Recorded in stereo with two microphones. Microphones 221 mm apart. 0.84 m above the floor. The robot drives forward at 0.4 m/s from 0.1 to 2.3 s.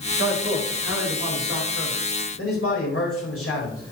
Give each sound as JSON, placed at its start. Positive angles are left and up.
{"t": 0.2, "sound": "a man speaking", "side_deg": 80, "distance_m": 4.0}